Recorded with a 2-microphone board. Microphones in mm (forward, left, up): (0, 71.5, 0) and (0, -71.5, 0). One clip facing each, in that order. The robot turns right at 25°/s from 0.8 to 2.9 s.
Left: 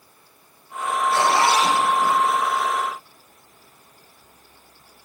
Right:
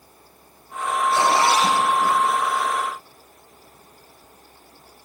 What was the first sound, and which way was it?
A zipper, 20° right (ahead or behind).